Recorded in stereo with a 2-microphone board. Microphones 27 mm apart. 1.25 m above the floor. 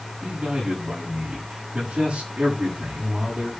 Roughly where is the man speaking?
Right.